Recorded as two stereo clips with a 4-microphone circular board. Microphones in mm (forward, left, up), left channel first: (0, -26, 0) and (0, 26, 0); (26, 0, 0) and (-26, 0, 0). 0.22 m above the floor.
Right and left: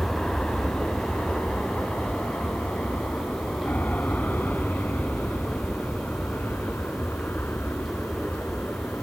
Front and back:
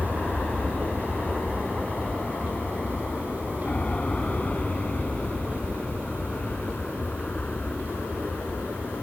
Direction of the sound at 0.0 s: 40° right.